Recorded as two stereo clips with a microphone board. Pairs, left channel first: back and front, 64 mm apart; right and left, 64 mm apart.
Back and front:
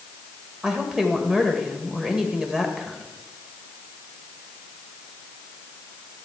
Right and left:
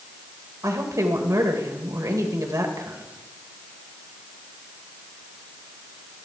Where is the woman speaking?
80° left, 1.8 m.